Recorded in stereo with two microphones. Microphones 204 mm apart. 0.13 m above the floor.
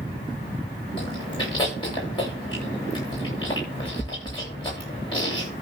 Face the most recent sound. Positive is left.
turn(degrees=25)  # may be behind; listen again after turning